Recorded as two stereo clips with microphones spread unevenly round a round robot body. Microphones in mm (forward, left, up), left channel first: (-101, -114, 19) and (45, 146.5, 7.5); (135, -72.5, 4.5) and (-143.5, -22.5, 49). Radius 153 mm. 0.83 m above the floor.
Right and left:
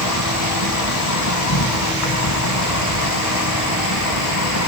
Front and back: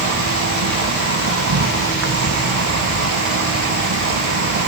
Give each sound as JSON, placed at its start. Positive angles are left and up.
{"t": 0.0, "sound": "an insect", "azimuth_deg": -155, "distance_m": 1.7}